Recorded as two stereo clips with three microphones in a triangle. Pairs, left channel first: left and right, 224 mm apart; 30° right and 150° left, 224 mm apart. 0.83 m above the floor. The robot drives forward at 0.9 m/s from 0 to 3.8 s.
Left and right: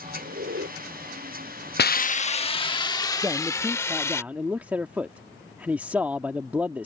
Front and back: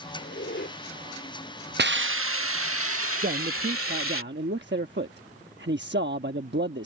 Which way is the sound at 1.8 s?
120° left.